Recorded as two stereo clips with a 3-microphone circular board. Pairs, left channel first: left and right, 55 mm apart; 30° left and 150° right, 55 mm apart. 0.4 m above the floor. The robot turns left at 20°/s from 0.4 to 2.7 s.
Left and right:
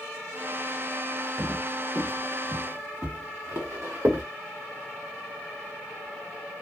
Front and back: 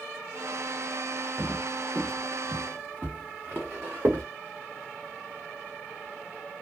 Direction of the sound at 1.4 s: 40° right.